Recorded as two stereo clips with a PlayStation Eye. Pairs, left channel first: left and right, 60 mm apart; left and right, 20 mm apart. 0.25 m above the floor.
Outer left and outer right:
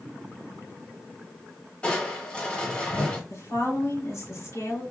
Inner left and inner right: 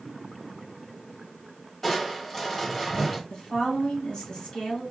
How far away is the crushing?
About 1.4 m.